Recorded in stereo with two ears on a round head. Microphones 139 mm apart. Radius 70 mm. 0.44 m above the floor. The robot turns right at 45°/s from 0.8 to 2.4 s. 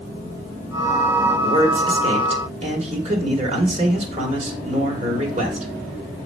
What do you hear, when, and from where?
1.4 s a man speaking: 125° right, 1.8 m; by 5.7 s 80° right, 1.8 m